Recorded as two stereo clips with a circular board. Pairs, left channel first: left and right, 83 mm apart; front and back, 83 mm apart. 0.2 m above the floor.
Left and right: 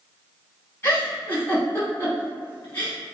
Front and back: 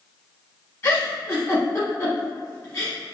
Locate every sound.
0.8 s a giggle: 35° left, 1.3 m